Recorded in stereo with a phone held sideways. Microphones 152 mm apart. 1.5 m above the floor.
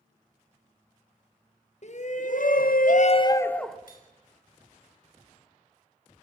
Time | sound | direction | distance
1.8 | a shout | 55° left (ahead or behind) | 1.7 m
3.9 | cutlery clinking | 75° left (ahead or behind) | 5.5 m